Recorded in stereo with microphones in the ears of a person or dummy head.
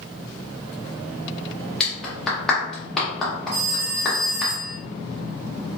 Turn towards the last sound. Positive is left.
turn(degrees=-65)  # may be behind; listen again after turning